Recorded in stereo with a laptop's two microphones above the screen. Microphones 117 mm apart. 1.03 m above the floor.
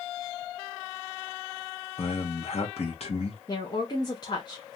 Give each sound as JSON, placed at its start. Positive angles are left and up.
{"t": 2.0, "sound": "a man speaking", "side_deg": 60, "distance_m": 0.9}
{"t": 3.5, "sound": "a woman speaking", "side_deg": 35, "distance_m": 0.8}